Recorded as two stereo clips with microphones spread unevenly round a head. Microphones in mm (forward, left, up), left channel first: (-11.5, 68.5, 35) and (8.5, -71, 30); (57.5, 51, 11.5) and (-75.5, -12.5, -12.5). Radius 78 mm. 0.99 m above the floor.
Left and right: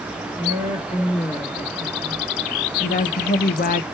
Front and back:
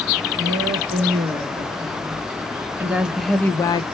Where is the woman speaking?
155° left, 2 m; by 3.8 s 85° left, 0.6 m.